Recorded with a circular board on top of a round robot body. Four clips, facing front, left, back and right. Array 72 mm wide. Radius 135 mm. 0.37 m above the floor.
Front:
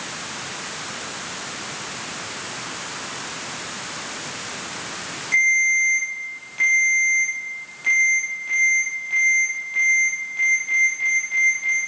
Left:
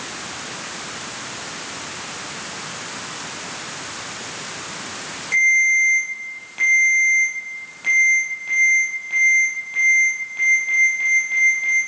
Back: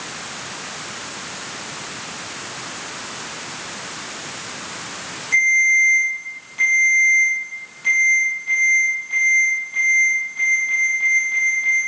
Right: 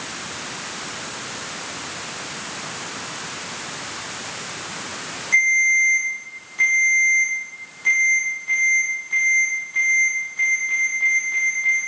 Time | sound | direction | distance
5.3 | a ringtone | 75° left | 5.5 m